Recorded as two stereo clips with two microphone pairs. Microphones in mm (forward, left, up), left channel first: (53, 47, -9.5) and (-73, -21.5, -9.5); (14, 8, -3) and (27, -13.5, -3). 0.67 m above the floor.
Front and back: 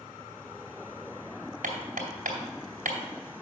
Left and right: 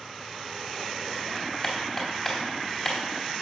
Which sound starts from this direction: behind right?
Hammering, at 1.6 s.